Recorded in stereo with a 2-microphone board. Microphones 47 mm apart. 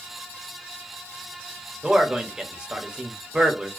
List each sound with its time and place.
1.8 s a man speaking: 20° right (ahead or behind), 0.7 m